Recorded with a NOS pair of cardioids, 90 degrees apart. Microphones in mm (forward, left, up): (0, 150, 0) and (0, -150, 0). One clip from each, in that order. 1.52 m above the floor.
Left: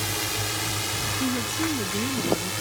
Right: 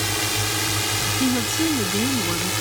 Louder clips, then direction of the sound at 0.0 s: Right 4 dB; 35° right.